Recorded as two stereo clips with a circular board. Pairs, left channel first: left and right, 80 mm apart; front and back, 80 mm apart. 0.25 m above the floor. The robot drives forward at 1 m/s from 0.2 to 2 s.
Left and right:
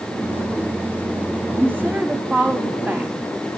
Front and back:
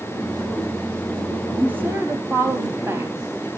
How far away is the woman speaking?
About 1.1 m.